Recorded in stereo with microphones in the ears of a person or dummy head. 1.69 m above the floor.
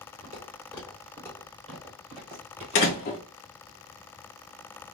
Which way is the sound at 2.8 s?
30° left (ahead or behind).